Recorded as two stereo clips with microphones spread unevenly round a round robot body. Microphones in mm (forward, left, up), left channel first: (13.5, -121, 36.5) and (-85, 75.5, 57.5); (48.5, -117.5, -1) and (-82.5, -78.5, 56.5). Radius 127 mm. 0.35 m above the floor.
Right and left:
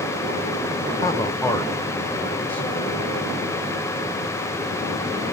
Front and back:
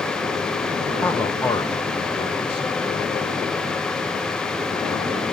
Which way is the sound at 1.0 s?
15° right.